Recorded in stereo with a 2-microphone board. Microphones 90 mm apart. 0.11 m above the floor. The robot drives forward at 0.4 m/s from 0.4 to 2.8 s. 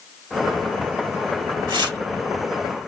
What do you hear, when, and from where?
1.7 s tearing paper: 60° right (ahead or behind), 2 m